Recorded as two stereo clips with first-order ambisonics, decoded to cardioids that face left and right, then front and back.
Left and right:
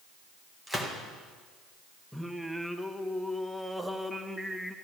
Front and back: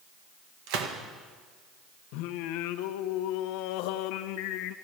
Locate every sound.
0.7 s a gunshot: 175° right, 1.7 m
2.1 s singing: straight ahead, 0.7 m